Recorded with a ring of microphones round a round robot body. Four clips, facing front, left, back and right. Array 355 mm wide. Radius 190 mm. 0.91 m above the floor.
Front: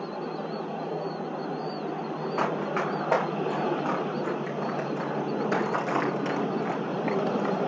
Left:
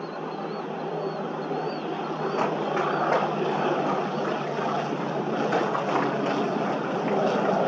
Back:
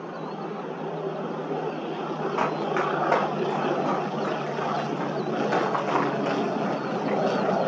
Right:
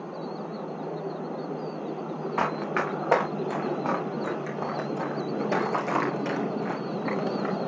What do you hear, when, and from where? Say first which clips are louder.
2.4 s running footsteps: left 1 dB, back 2 dB; 100° right, 5.5 m; by 7.6 s 20° right, 3.5 m